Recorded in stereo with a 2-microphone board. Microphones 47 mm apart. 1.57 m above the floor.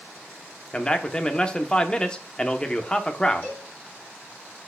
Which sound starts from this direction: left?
A cowbell, at 3.4 s.